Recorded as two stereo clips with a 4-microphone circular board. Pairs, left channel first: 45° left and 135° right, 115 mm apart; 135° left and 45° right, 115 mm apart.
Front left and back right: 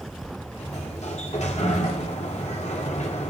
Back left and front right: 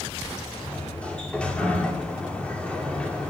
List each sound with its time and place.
0.6 s a sliding door: 55° left, 2.5 m